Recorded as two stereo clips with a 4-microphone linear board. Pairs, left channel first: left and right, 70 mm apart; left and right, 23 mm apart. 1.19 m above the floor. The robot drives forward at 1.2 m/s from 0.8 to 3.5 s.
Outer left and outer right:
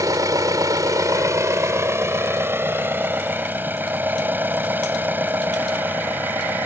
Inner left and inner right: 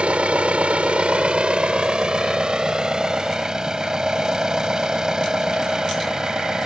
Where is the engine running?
60° right (ahead or behind); by 6.7 s 30° right (ahead or behind).